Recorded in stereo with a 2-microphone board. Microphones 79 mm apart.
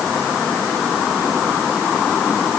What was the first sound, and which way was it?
Only background noise.